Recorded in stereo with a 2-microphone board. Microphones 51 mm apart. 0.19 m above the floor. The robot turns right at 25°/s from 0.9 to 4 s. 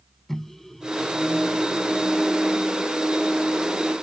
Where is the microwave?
5° left (ahead or behind); by 2.9 s 30° left (ahead or behind).